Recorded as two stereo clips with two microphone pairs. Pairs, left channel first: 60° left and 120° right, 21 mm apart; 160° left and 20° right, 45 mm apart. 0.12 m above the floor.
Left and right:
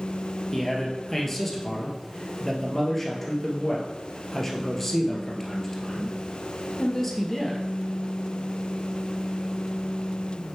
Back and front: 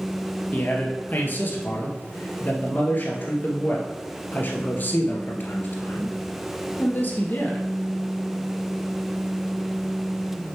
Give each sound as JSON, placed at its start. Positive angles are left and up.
{"t": 0.5, "sound": "a man speaking", "azimuth_deg": 135, "distance_m": 1.8}